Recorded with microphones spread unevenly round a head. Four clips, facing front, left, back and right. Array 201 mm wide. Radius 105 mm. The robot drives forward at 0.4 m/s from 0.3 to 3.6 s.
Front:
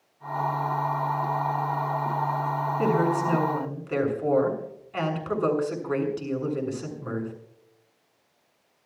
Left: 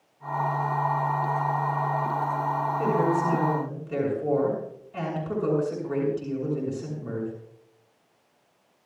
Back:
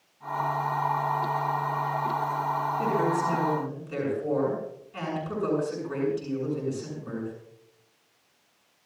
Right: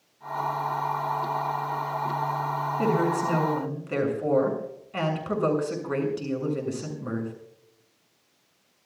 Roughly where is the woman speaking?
Ahead right.